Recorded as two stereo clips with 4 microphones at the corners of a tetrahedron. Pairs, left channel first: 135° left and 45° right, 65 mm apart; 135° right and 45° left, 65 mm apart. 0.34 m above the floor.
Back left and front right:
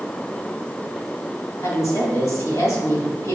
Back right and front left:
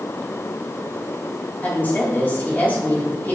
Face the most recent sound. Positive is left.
turn(degrees=165)